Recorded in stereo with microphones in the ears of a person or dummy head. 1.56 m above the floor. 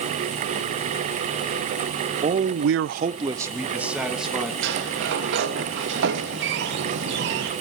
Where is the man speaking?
35° right (ahead or behind), 1.1 m; by 4.5 s centre (ahead or behind), 3 m.